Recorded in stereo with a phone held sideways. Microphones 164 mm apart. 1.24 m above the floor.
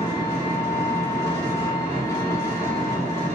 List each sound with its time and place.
0.0 s an engine running: 15° left (ahead or behind), 0.8 m